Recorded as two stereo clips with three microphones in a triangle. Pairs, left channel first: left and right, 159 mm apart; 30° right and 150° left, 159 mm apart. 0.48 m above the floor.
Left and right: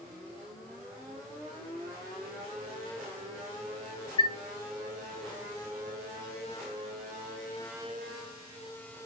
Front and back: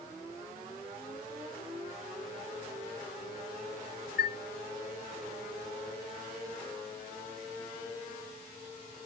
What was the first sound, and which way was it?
A chime, 70° left.